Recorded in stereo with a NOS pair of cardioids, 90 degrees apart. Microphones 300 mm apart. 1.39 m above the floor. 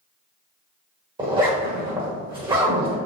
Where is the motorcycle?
I don't hear a motorcycle.